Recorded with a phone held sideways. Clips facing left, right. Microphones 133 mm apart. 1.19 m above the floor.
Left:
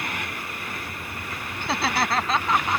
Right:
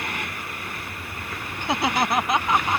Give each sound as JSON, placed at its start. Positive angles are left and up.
{"t": 1.6, "sound": "laughter", "side_deg": -15}